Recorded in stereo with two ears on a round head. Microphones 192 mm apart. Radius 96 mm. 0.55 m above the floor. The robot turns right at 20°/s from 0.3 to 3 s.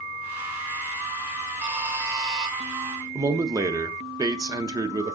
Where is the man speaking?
15° right (ahead or behind), 0.6 m.